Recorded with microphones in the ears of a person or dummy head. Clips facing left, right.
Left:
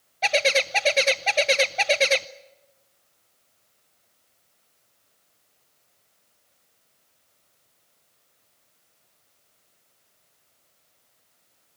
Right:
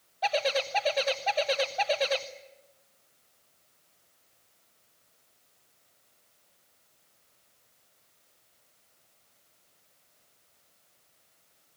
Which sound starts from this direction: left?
A bird, at 0.2 s.